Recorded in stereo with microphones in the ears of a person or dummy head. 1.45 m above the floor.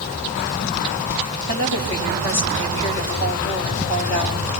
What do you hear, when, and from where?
1.5 s a woman speaking: 65° left (ahead or behind), 6 m